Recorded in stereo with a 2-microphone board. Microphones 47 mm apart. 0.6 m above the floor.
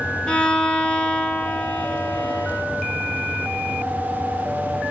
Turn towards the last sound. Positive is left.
turn(degrees=20)  # may be behind; listen again after turning